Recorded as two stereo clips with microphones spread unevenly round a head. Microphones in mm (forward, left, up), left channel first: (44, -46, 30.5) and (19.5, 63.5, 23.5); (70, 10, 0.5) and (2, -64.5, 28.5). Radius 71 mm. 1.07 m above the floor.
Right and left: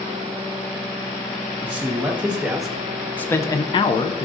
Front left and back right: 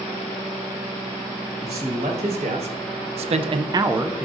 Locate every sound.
1.6 s a man speaking: straight behind, 1.6 m; by 4.2 s 40° right, 0.6 m